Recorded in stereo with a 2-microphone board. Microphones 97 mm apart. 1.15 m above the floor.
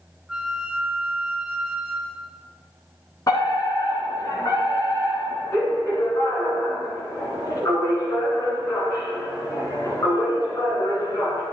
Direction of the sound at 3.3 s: 40° left (ahead or behind).